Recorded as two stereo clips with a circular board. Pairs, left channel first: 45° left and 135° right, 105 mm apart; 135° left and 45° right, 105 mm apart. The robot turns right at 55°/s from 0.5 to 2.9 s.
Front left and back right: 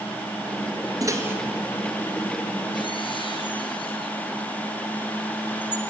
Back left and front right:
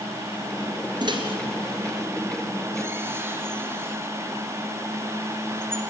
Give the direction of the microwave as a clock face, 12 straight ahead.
3 o'clock.